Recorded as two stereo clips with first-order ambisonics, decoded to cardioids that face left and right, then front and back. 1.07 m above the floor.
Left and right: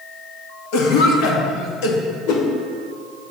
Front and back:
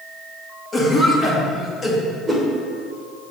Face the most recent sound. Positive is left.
turn(degrees=100)